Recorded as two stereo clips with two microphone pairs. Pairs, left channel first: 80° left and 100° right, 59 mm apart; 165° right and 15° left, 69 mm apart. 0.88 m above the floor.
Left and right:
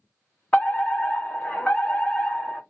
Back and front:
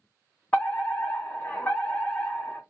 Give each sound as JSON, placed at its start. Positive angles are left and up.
{"t": 0.5, "sound": "a fire alarm", "azimuth_deg": 135, "distance_m": 1.8}